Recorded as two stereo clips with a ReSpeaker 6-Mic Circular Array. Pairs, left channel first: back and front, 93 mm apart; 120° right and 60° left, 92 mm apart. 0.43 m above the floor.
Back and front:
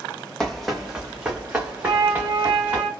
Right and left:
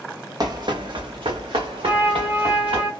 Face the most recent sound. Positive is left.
turn(degrees=-10)